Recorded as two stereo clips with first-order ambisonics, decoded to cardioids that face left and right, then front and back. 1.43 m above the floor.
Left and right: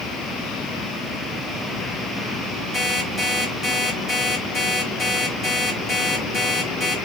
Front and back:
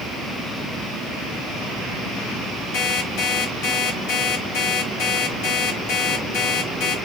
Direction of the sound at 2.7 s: 15° left.